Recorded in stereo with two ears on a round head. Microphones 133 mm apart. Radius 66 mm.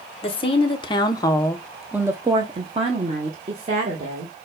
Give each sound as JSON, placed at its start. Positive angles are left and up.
{"t": 0.2, "sound": "a woman speaking", "side_deg": 35, "distance_m": 1.1}